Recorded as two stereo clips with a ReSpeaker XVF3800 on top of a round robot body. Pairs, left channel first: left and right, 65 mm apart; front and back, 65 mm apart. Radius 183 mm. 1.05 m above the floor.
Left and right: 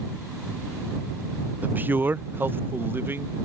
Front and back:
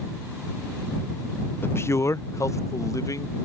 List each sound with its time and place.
1.6 s a man speaking: 35° right; by 3.4 s 30° right